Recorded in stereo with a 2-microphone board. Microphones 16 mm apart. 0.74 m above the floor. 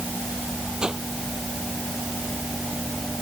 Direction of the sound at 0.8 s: 55° right (ahead or behind).